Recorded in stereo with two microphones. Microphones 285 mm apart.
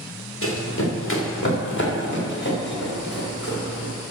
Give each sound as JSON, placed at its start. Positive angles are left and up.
{"t": 0.4, "sound": "running footsteps", "side_deg": 50, "distance_m": 2.5}